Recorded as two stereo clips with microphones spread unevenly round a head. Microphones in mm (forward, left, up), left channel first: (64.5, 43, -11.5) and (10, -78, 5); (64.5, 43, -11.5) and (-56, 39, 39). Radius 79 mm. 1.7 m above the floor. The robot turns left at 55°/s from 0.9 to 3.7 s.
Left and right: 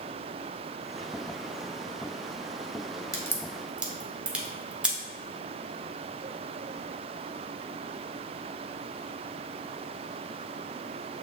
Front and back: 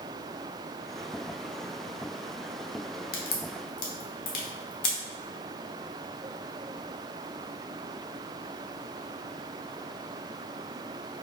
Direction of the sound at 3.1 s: Straight ahead.